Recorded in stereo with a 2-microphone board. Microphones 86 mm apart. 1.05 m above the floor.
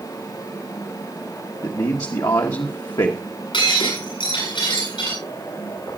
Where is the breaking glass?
80° left, 8 m.